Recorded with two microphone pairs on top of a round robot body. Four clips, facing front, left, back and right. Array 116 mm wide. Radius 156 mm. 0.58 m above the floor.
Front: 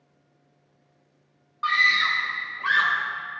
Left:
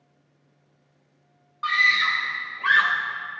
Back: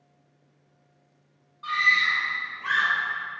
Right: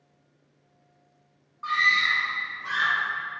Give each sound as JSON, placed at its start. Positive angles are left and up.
{"t": 1.6, "sound": "a scream", "azimuth_deg": 30, "distance_m": 4.0}